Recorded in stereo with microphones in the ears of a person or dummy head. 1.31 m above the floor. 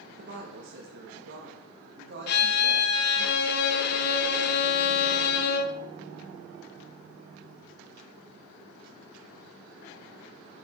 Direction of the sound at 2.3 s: 55° left (ahead or behind).